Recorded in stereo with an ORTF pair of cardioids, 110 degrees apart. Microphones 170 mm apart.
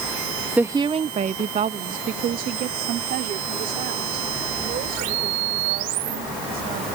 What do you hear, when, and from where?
0.6 s a woman speaking: 10° right; by 7.0 s 65° right